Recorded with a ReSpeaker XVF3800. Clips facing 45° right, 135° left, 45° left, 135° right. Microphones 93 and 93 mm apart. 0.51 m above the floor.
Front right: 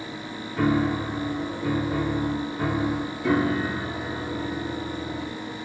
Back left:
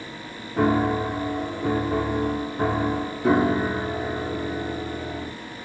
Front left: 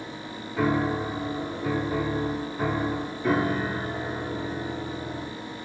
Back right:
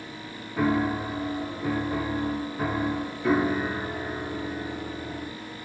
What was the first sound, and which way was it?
A piano, 140° left.